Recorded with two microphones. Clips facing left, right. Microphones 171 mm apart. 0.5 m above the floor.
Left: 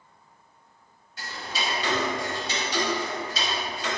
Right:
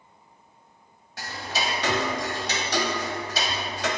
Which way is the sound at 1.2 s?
70° right (ahead or behind).